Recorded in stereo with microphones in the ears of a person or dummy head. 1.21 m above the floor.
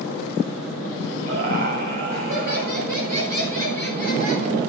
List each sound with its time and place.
1.3 s laughter: 45° right (ahead or behind), 7 m